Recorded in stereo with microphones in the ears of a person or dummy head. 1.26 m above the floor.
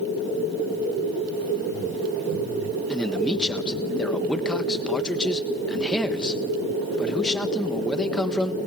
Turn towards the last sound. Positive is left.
turn(degrees=5)  # may be behind; listen again after turning